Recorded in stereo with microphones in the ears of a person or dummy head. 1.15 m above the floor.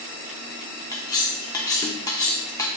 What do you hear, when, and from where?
0.9 s cutlery clinking: 15° left (ahead or behind), 0.6 m